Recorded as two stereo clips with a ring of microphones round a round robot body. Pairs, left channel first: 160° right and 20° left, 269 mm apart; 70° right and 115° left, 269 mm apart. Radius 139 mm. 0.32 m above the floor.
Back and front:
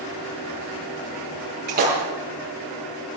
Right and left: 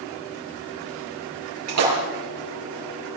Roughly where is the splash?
Left.